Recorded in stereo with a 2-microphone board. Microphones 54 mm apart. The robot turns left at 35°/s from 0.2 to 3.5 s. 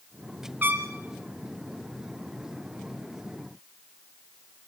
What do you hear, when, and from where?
0.6 s a trumpet: 35° right (ahead or behind), 1.9 m; by 0.9 s 45° right (ahead or behind), 1.9 m